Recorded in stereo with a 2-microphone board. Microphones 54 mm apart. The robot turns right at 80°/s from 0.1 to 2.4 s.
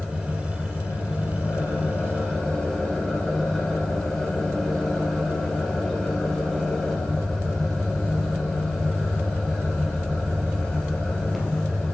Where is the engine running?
15° right, 1.8 m; by 11.9 s 170° left, 1.8 m.